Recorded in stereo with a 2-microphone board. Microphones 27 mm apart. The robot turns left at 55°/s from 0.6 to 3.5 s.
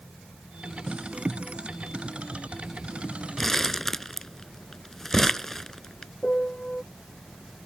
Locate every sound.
3.4 s crumpling: 10° left (ahead or behind); by 6.1 s 15° left (ahead or behind)
6.2 s a piano: 45° left (ahead or behind)